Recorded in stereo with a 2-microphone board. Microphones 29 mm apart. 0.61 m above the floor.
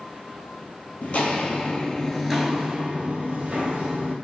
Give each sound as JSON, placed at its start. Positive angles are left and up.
{"t": 1.0, "sound": "footsteps", "side_deg": 55, "distance_m": 0.9}